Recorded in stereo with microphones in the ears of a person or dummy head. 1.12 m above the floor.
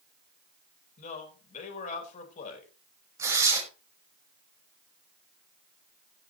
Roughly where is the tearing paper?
Centre.